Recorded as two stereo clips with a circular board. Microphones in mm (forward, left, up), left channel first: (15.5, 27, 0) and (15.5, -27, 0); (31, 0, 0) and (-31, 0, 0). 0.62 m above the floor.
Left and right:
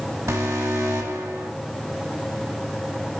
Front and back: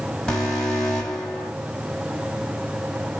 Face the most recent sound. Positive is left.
turn(degrees=-80)